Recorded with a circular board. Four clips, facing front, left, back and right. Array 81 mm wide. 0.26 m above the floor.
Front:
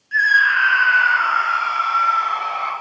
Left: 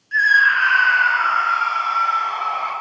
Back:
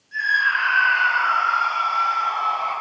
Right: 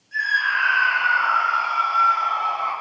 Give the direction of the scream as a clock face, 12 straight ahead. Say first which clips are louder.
Left 7 dB, front 5 dB; 10 o'clock.